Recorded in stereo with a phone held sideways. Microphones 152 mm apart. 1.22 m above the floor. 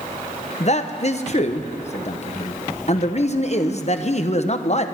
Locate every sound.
0.6 s a man speaking: 45° left (ahead or behind), 0.8 m